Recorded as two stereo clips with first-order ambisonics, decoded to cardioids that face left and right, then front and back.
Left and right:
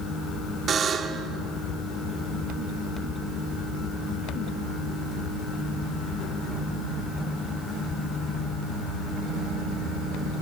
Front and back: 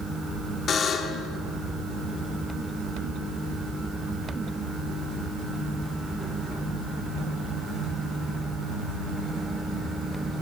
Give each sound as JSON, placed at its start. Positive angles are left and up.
{"t": 0.7, "sound": "a buzzer", "azimuth_deg": -40, "distance_m": 1.4}